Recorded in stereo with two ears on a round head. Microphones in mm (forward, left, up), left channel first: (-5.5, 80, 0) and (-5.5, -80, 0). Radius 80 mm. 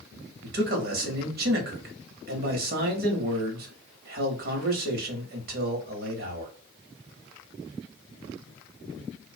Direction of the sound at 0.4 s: 55° right (ahead or behind).